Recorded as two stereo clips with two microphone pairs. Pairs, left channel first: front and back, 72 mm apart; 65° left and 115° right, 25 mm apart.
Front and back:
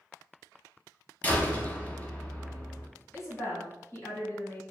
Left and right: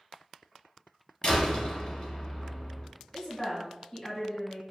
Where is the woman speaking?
20° left, 1.2 m.